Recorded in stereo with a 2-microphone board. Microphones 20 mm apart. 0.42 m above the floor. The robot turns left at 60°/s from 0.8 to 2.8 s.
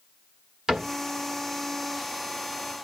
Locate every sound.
0.7 s a cupboard door: 30° right (ahead or behind), 0.9 m; by 0.9 s 40° right (ahead or behind), 0.9 m